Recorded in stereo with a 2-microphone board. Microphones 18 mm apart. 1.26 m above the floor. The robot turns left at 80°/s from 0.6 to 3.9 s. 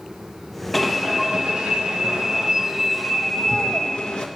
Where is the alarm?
10° left, 1.3 m; by 4.3 s 120° left, 1.3 m.